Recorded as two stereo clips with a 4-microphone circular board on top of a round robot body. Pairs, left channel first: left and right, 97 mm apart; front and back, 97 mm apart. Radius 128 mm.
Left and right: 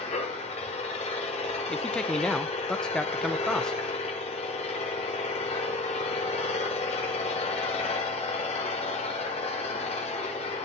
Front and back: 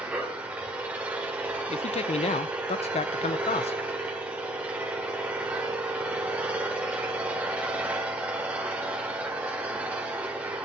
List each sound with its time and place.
0.0 s an engine running: 105° left, 1.5 m
1.7 s a man speaking: 5° left, 0.5 m